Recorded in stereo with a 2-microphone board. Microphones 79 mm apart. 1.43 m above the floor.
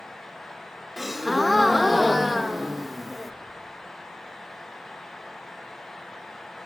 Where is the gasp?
Centre (ahead or behind), 0.9 m.